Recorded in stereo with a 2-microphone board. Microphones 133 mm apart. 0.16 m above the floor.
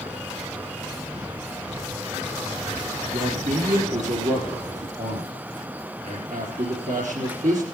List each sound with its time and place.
3.1 s a man speaking: 70° right (ahead or behind), 3.5 m